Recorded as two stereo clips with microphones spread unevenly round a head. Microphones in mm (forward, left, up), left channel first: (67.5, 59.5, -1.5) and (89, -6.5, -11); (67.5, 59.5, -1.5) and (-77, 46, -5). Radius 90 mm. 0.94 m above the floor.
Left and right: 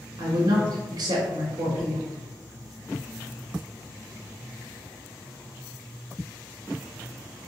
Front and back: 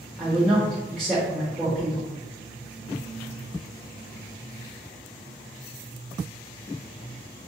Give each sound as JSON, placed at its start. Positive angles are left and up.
{"t": 0.2, "sound": "a woman speaking", "azimuth_deg": -85, "distance_m": 1.2}